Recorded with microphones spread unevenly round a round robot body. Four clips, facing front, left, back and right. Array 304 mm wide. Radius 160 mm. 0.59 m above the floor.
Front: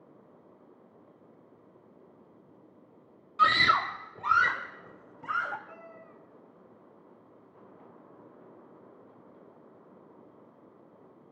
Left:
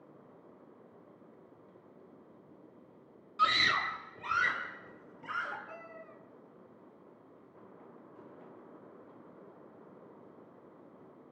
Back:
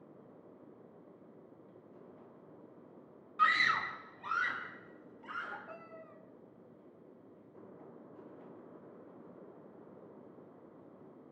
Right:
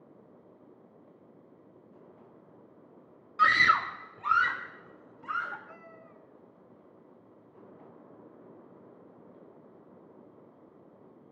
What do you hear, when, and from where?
3.4 s a scream: 10° right, 1.0 m; by 5.6 s straight ahead, 3.5 m
5.7 s a cat meowing: 165° left, 2.5 m